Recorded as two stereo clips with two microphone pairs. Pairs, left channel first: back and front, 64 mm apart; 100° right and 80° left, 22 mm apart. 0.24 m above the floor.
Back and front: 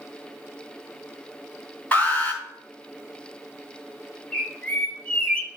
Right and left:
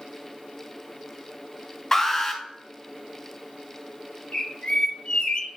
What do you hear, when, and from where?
1.9 s an alarm: 150° right, 2 m
4.3 s a bird: 125° right, 0.9 m